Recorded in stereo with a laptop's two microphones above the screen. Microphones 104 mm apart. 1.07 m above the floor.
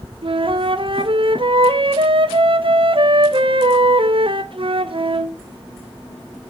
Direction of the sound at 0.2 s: 55° right (ahead or behind).